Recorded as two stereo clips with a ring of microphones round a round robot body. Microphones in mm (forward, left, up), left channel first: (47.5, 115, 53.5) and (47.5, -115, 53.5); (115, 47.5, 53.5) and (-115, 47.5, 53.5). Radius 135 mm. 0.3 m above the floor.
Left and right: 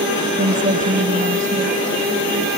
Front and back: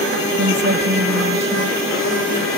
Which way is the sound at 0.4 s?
145° right.